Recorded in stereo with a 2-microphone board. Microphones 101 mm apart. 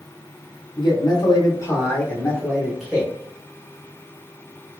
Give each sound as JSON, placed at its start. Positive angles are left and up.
{"t": 0.8, "sound": "a man speaking", "side_deg": 50, "distance_m": 1.1}